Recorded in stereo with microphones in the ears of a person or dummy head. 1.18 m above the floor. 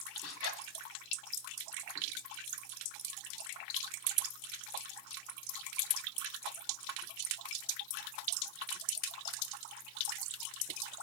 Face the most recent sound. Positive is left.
turn(degrees=75)  # may be behind; listen again after turning